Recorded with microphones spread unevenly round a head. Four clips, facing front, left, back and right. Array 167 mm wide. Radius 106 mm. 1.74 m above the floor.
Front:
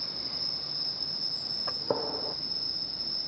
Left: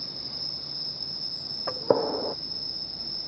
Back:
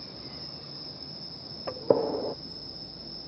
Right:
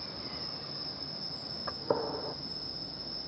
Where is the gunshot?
145° left.